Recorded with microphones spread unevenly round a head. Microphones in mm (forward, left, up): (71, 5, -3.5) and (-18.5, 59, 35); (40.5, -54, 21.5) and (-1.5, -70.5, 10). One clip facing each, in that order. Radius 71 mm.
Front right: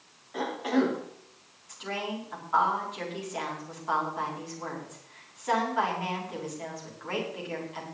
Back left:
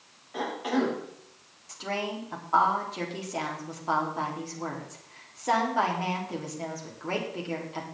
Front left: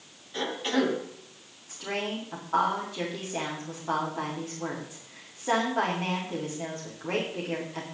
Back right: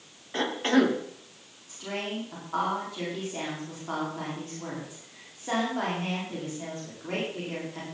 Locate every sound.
0.3 s a cough: 125° right, 3.5 m
1.7 s a woman speaking: 100° left, 4.5 m